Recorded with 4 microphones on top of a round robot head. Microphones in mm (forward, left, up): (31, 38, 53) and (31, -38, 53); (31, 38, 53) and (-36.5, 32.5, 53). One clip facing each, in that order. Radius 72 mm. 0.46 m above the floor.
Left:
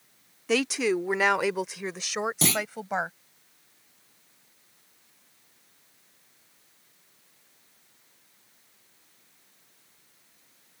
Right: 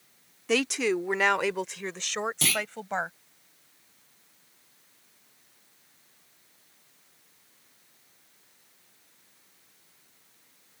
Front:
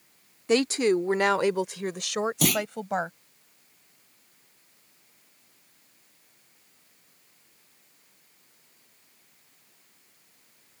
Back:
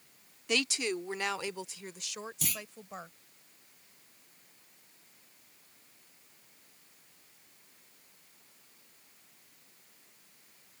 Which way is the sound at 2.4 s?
25° left.